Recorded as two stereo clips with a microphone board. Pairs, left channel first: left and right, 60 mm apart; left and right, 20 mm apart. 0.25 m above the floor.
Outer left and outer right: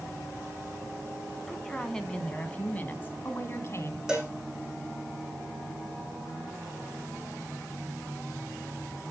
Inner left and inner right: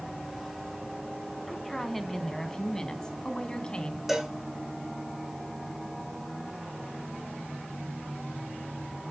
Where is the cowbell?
10° right (ahead or behind), 5.5 m.